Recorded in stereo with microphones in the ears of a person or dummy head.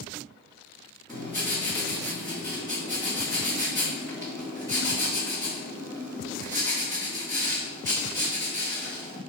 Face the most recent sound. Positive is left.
turn(degrees=10)  # may be behind; listen again after turning